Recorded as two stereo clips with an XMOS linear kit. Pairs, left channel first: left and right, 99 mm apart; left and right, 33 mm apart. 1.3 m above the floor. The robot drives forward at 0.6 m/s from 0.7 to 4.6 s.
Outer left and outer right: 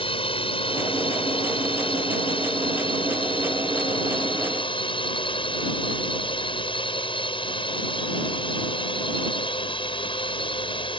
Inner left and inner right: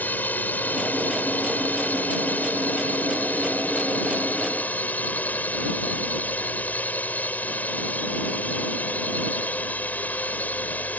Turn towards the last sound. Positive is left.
turn(degrees=60)  # may be behind; listen again after turning